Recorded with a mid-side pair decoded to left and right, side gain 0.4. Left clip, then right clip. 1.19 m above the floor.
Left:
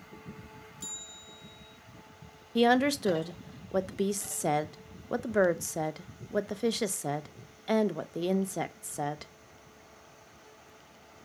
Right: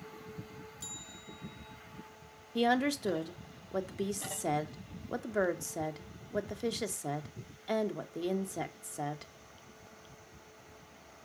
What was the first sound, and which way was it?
A bell, 10° left.